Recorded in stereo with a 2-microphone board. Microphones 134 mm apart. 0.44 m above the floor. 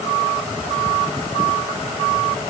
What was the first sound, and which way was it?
Only background noise.